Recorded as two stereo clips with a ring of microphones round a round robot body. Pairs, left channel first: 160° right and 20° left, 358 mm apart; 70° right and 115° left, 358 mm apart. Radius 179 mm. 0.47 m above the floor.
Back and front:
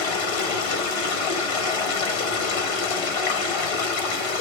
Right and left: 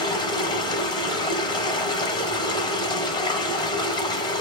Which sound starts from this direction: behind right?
Running water, at 0.0 s.